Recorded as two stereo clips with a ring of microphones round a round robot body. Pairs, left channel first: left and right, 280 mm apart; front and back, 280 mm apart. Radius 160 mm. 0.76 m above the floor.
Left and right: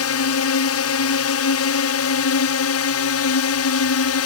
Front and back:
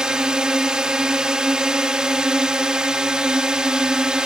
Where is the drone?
95° left.